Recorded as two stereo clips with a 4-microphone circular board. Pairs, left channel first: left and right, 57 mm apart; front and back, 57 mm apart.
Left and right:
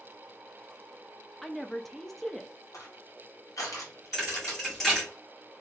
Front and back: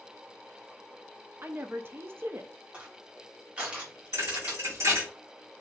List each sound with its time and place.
1.4 s a woman speaking: straight behind, 0.5 m
2.7 s crushing: 110° left, 1.4 m
4.1 s a thud: 175° left, 2.0 m